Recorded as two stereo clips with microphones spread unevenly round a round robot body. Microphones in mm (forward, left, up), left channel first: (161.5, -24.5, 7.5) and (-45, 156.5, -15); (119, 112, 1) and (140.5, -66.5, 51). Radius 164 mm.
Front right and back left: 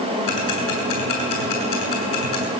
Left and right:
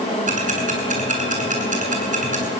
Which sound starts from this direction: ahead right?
Ticking, at 0.3 s.